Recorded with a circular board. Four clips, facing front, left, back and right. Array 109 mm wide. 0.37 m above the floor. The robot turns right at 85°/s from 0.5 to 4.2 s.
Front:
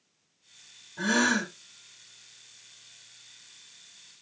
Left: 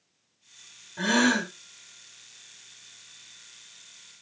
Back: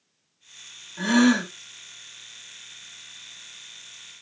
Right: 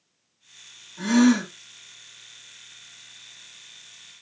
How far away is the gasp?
About 1.1 m.